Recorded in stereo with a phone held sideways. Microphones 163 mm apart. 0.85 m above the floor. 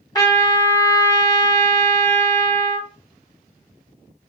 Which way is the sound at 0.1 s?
20° left (ahead or behind).